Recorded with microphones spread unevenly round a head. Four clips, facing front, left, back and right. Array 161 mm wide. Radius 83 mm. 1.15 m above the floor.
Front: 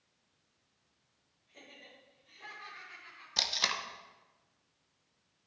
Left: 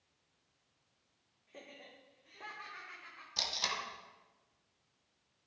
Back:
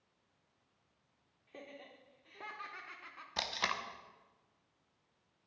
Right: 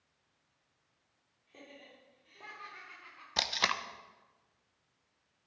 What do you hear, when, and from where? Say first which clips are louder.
1.5 s laughter: even, back 5 dB; 170° left, 3.5 m; by 3.3 s straight behind, 1.9 m
3.4 s tape being pulled: right 6 dB, even; 80° right, 1.0 m